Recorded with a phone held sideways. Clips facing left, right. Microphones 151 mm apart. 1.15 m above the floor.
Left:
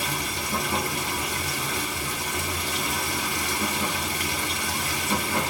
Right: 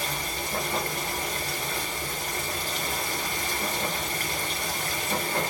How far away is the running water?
About 1.5 m.